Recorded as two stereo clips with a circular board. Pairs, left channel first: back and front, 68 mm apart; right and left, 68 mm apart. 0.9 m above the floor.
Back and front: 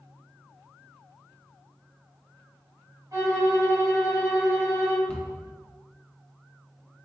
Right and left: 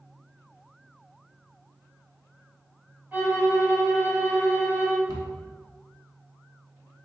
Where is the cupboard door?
110° left, 0.9 m.